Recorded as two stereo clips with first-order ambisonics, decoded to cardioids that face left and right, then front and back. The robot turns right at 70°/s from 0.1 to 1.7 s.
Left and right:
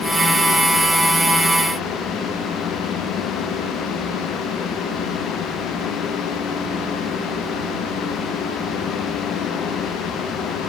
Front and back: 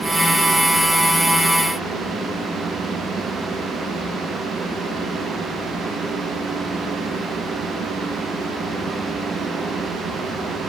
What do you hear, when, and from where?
Only background noise.